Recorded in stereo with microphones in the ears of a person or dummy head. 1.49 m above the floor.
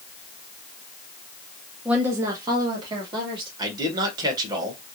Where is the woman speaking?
10° right (ahead or behind), 0.8 m; by 3.5 s 30° right (ahead or behind), 2 m.